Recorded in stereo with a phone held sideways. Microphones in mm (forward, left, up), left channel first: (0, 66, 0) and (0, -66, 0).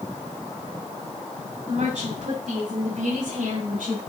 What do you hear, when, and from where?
1.7 s a woman speaking: 55° right (ahead or behind), 6 m; by 4.0 s 70° right (ahead or behind), 4.5 m